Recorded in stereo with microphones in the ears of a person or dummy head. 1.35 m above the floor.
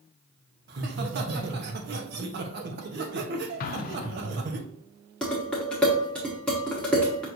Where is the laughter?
55° right (ahead or behind), 1.0 m.